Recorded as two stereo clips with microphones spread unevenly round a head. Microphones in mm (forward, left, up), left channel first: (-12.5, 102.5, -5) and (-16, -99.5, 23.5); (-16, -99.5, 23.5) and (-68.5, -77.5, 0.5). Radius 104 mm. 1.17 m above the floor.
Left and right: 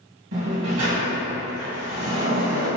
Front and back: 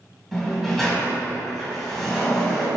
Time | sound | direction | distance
0.3 | a sliding door | 95° right | 1.8 m